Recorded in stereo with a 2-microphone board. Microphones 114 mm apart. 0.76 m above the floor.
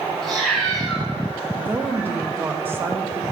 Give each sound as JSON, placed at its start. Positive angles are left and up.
{"t": 0.2, "sound": "a cat meowing", "side_deg": 0, "distance_m": 2.0}
{"t": 1.6, "sound": "a woman speaking", "side_deg": -20, "distance_m": 0.6}